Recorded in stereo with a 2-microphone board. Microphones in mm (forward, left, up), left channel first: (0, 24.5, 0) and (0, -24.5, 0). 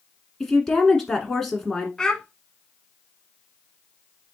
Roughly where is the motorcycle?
I don't hear a motorcycle.